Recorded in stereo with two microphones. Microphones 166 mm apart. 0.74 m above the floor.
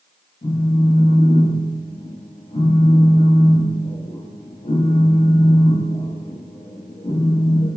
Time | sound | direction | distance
0.4 | a phone buzzing | 45° left (ahead or behind) | 0.6 m